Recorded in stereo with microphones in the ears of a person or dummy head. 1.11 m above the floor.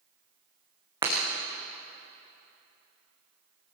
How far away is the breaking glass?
About 4.5 m.